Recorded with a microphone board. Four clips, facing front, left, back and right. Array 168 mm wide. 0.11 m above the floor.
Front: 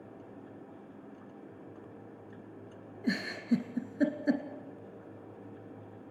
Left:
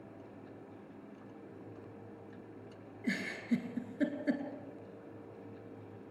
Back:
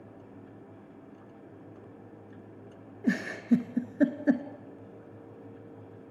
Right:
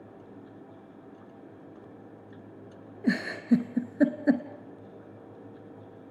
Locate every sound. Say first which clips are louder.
3.0 s a giggle: right 10 dB, back 4 dB; 115° right, 1.5 m